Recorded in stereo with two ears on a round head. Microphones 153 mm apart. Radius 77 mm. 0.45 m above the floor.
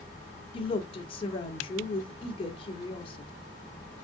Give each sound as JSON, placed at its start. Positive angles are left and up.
{"t": 0.5, "sound": "a woman speaking", "side_deg": 35, "distance_m": 1.1}